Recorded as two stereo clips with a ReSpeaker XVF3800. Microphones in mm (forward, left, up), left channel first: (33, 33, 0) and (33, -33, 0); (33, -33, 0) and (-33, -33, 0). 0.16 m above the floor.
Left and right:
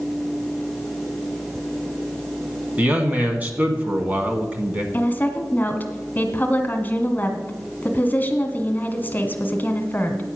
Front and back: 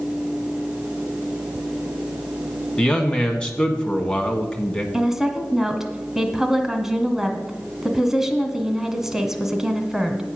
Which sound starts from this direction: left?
A woman speaking, at 4.9 s.